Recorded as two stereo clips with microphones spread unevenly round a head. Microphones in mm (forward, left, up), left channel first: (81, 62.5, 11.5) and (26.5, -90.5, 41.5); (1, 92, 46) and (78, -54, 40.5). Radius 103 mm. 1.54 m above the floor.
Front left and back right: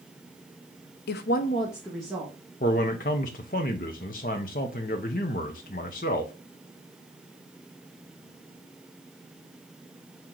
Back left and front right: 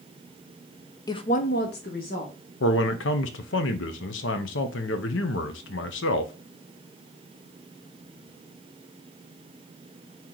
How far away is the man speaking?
About 0.6 m.